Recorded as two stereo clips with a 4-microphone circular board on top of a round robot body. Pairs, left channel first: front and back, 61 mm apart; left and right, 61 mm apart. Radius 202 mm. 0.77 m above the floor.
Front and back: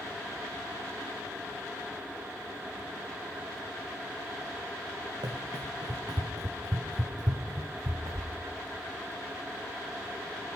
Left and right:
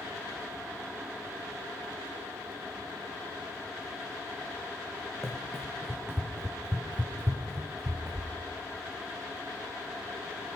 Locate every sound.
5.2 s running footsteps: straight behind, 3 m; by 8.3 s 145° right, 3.5 m